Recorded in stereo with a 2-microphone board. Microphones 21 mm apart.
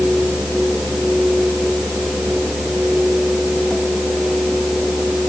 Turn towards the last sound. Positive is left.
No sound to turn to.